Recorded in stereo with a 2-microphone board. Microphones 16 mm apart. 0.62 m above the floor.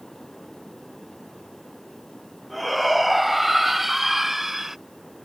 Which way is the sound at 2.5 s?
5° right (ahead or behind).